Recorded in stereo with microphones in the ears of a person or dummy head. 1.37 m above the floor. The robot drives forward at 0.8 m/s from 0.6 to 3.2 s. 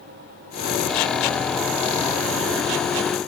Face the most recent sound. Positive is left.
No sound to turn to.